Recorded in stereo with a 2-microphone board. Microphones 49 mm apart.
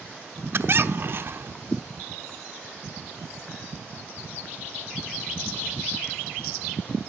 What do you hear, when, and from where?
0.5 s a squeak: 50° right (ahead or behind), 0.8 m